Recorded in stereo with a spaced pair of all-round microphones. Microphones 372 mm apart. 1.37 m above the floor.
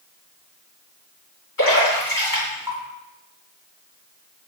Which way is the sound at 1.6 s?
60° left (ahead or behind).